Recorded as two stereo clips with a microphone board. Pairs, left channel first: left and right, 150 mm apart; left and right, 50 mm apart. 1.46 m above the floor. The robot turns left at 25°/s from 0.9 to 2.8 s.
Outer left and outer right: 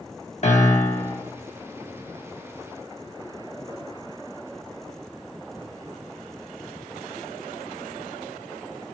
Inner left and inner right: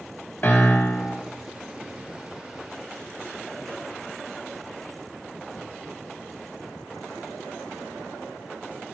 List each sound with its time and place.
0.4 s a piano: 50° left (ahead or behind), 1.7 m; by 1.2 s 40° left (ahead or behind), 1.7 m